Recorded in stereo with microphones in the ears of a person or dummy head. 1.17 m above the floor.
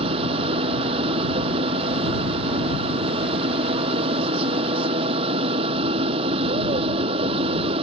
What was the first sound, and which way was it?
A machine running, 30° right (ahead or behind).